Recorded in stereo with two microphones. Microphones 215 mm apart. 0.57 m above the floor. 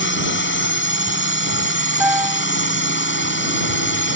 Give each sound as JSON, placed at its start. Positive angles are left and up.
{"t": 0.0, "sound": "a drone", "side_deg": 60}
{"t": 2.0, "sound": "a piano", "side_deg": -5}